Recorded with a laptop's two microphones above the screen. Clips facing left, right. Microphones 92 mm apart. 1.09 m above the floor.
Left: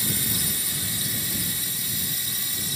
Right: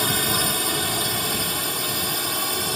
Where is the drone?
65° right (ahead or behind).